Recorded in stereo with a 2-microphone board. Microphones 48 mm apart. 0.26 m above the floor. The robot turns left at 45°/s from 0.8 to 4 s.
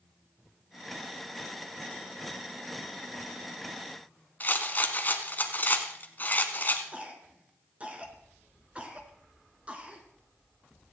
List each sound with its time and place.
4.4 s a rattle: 40° left (ahead or behind), 1.7 m
6.9 s a cough: 30° right (ahead or behind), 3.5 m